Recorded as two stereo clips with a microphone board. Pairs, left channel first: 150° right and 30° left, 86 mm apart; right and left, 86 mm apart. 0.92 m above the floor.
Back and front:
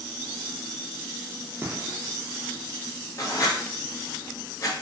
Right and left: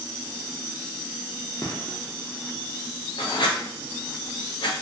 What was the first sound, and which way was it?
A gunshot, 30° right.